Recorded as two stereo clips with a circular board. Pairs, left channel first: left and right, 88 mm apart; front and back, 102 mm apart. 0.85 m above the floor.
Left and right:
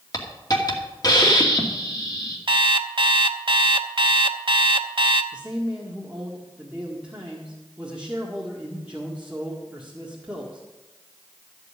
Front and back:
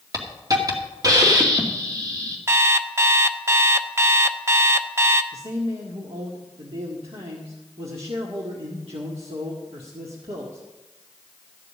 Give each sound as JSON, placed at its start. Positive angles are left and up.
{"t": 0.1, "sound": "a hiss", "azimuth_deg": 130, "distance_m": 2.0}
{"t": 2.5, "sound": "an alarm clock", "azimuth_deg": -115, "distance_m": 0.7}
{"t": 5.3, "sound": "a man speaking", "azimuth_deg": -165, "distance_m": 1.7}